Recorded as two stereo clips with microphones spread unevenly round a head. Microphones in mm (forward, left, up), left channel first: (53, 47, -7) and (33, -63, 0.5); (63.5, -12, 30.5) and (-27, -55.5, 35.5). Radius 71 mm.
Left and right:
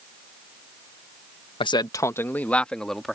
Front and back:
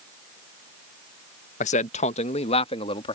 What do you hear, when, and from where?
1.6 s a man speaking: 35° left; by 3.2 s 10° right